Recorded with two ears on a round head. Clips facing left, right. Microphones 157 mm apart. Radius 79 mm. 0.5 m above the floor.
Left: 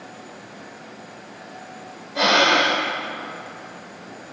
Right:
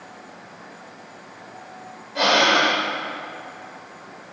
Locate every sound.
2.1 s breathing: centre (ahead or behind), 1.5 m